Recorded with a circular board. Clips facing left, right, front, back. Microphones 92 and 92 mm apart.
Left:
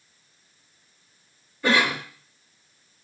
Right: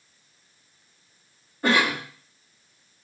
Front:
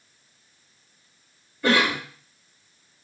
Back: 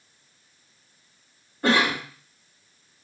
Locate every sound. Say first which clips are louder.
1.6 s a cough: even, even; 135° right, 1.7 m